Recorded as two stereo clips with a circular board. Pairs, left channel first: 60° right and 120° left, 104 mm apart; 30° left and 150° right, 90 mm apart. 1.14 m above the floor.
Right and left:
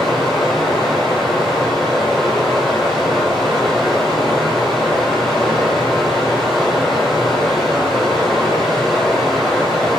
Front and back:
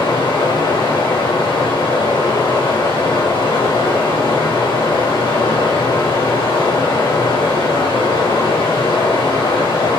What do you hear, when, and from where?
0.0 s running water: 30° left, 3.5 m